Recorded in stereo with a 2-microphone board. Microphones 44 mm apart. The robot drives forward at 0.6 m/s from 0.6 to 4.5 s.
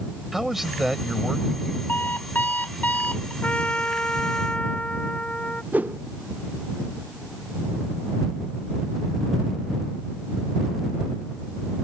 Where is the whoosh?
40° right (ahead or behind).